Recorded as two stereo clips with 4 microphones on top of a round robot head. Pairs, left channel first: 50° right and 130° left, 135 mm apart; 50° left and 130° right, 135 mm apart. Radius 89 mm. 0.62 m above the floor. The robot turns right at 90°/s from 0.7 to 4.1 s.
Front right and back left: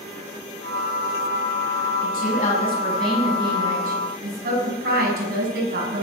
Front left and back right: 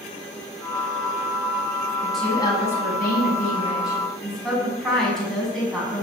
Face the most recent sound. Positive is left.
turn(degrees=135)